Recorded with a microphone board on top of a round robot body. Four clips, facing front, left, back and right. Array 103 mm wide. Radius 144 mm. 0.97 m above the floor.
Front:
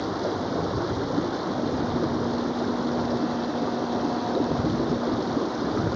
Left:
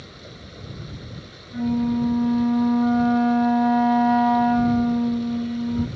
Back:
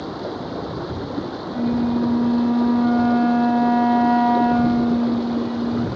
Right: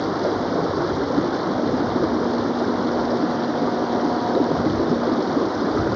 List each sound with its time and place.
0.0 s running water: 85° right
1.5 s a flute: 145° left